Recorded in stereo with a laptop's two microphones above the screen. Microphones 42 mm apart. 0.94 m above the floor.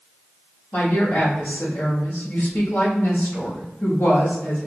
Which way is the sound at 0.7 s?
70° left (ahead or behind).